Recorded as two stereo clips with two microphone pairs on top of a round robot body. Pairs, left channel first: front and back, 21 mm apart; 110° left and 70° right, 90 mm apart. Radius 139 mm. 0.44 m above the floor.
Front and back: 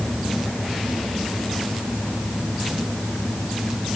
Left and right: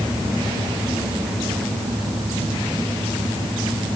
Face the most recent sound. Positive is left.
No sound to turn to.